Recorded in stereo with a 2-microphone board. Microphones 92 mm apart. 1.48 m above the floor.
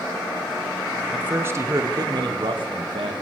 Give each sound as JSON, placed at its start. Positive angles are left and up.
{"t": 1.1, "sound": "a man speaking", "side_deg": -15, "distance_m": 1.0}